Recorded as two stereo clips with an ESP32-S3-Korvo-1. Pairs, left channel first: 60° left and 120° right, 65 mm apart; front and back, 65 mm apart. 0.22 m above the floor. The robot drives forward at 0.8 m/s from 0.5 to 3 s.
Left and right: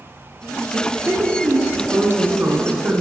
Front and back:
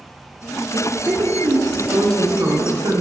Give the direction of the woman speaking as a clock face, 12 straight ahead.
6 o'clock.